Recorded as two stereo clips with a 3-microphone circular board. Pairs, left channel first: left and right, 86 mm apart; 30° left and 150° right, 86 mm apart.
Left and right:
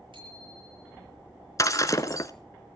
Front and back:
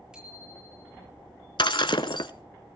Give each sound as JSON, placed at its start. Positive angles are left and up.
{"t": 0.1, "sound": "a bicycle bell", "azimuth_deg": -70, "distance_m": 8.5}
{"t": 1.6, "sound": "breaking glass", "azimuth_deg": 45, "distance_m": 1.0}